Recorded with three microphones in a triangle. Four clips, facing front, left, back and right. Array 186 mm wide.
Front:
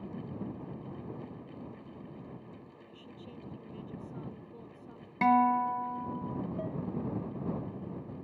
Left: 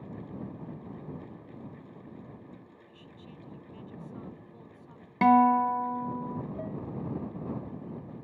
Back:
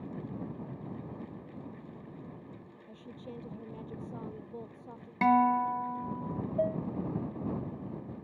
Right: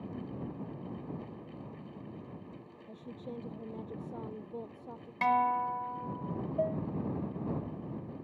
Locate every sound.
2.9 s a woman speaking: 115° right
5.2 s a guitar: 90° left
6.6 s dishes clattering: 145° right